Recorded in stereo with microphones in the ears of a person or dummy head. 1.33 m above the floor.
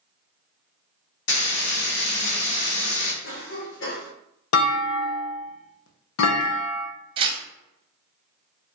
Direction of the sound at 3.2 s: 60° left (ahead or behind).